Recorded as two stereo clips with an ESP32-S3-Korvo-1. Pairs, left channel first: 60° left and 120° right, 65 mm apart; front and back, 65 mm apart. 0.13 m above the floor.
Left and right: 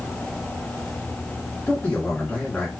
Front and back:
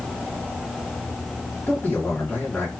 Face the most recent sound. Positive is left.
turn(degrees=30)